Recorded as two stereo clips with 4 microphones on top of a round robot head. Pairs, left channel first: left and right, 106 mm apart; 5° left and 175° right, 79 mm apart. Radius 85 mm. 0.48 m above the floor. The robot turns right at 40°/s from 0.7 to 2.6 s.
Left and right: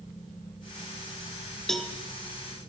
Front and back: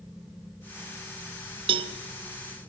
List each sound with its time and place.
1.7 s a cowbell: 175° left, 0.7 m; by 1.9 s 175° right, 0.7 m